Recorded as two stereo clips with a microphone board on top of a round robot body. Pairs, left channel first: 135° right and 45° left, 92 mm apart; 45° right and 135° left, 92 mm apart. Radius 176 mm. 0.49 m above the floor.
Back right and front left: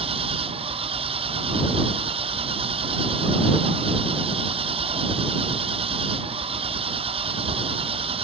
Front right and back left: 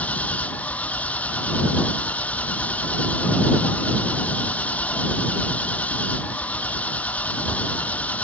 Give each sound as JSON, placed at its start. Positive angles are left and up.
{"t": 0.0, "sound": "an engine running", "azimuth_deg": 30}